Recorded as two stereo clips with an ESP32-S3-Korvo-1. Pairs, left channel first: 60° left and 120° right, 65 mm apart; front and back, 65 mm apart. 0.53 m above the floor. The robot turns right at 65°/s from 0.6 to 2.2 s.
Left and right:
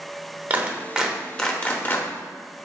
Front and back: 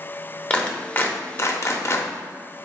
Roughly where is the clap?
Ahead right.